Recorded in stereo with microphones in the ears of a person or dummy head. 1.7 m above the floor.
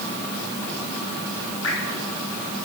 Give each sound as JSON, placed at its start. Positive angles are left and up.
{"t": 1.6, "sound": "dripping", "side_deg": 75, "distance_m": 4.0}